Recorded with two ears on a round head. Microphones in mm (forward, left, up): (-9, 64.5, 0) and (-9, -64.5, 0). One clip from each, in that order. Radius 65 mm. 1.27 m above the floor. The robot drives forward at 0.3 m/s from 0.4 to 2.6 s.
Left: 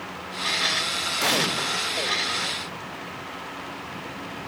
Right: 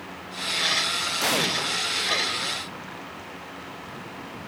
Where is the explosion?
5° right (ahead or behind), 0.5 m.